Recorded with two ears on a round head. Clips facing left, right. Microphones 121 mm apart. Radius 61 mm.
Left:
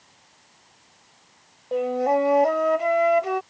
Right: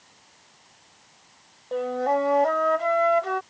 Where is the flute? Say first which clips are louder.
Left 2 dB; 15° left (ahead or behind).